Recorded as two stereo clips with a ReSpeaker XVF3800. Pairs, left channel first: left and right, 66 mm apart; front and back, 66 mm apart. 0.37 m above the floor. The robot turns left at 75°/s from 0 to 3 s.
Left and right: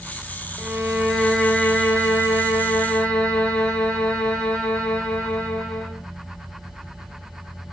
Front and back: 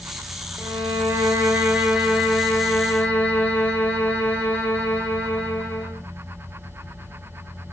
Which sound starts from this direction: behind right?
A violin, at 0.6 s.